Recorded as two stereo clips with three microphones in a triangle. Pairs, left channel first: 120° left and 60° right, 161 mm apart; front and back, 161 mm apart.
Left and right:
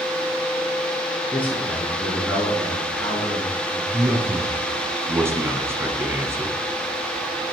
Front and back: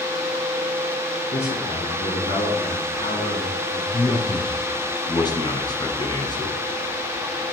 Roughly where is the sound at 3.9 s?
Ahead.